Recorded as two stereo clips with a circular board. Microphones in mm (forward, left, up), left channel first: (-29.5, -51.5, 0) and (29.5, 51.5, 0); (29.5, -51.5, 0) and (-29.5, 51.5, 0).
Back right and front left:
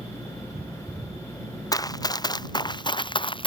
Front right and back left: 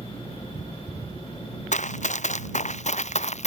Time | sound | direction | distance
1.7 | running footsteps | 60° right | ?